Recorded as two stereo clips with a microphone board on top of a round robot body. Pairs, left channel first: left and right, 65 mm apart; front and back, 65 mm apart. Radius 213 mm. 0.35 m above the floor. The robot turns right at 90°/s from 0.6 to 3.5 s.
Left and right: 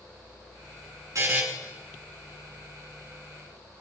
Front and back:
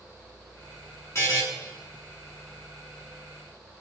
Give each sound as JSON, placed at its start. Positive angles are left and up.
{"t": 1.1, "sound": "a buzzer", "azimuth_deg": -50, "distance_m": 3.0}